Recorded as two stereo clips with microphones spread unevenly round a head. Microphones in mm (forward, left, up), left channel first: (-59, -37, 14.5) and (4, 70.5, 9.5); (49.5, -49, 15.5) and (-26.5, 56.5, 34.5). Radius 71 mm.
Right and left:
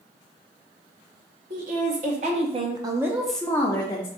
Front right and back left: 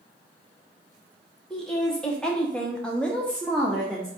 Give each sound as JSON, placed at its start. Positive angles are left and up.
{"t": 1.5, "sound": "a woman speaking", "azimuth_deg": 35, "distance_m": 1.1}